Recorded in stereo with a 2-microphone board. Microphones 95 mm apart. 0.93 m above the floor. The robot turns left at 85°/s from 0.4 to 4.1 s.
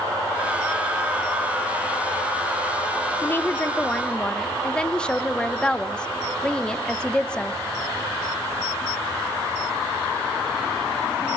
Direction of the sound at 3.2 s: 20° left (ahead or behind).